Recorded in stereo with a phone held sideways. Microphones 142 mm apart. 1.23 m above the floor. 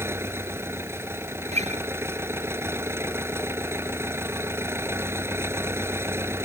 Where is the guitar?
50° right (ahead or behind).